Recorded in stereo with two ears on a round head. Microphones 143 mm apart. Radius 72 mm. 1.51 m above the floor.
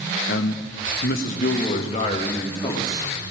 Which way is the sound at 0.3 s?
65° left (ahead or behind).